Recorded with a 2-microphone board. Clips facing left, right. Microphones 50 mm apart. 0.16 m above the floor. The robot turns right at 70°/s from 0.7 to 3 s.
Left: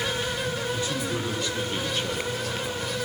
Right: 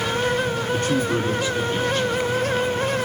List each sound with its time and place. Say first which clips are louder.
0.7 s a man speaking: right 7 dB; 65° right, 5.5 m; by 3.0 s 95° left, 5.5 m